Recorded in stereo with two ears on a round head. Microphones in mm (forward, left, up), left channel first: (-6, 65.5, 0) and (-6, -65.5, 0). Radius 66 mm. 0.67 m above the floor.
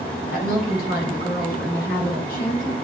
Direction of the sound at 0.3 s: 70° left (ahead or behind).